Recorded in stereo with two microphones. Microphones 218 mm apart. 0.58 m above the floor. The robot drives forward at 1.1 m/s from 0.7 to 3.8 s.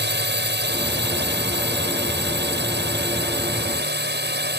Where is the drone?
60° right (ahead or behind).